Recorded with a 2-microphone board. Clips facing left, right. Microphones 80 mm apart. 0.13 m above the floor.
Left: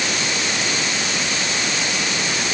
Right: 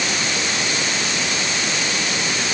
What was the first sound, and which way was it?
Only background noise.